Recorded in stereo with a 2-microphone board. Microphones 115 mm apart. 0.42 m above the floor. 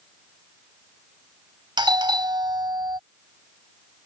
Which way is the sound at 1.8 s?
40° right (ahead or behind).